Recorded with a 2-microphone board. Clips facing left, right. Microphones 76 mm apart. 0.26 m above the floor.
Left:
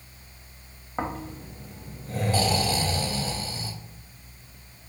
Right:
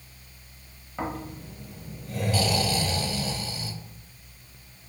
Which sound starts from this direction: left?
Snoring, at 1.0 s.